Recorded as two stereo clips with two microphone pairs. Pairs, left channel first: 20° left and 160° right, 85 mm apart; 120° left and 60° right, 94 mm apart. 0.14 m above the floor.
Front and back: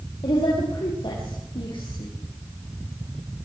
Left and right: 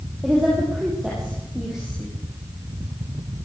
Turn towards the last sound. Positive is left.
turn(degrees=20)